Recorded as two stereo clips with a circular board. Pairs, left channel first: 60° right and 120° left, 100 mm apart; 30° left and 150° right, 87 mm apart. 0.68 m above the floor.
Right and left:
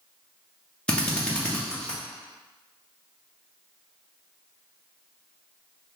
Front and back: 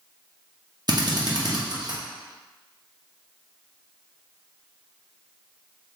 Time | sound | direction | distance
0.9 | a drill | 140° right | 0.9 m